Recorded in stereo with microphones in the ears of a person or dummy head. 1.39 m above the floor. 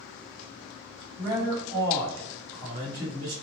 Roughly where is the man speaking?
Right.